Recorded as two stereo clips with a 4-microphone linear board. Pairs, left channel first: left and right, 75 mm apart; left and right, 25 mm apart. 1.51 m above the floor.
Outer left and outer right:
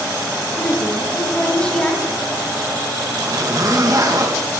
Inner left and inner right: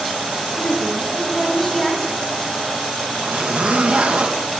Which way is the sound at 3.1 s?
50° right (ahead or behind).